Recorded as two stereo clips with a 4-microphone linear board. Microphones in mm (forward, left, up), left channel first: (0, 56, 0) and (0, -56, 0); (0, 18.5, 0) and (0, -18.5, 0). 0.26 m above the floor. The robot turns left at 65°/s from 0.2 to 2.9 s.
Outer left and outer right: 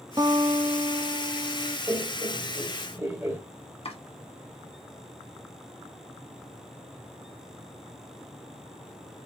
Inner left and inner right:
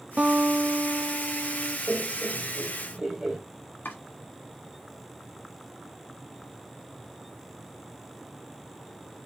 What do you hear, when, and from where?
0.2 s a guitar: 40° right, 0.7 m; by 1.8 s 140° right, 0.7 m
1.9 s laughter: 25° right (ahead or behind), 1.5 m; by 3.4 s 20° right (ahead or behind), 1.5 m
3.9 s chopping: 60° left (ahead or behind), 1.5 m